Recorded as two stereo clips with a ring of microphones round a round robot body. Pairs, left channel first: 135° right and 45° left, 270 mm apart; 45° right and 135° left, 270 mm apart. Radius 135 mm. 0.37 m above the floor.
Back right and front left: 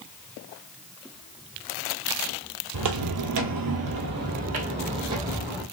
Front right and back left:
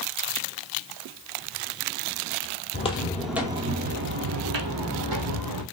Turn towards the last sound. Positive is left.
turn(degrees=125)